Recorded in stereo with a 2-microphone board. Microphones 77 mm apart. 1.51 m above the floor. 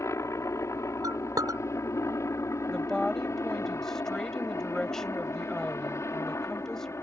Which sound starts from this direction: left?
A helicopter, at 0.0 s.